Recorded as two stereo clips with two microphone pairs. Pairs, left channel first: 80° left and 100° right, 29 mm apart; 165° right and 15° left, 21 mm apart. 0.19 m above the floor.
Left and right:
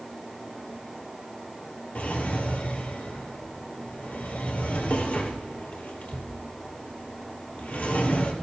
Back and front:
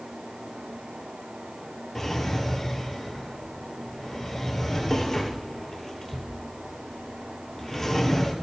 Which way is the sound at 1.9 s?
115° left.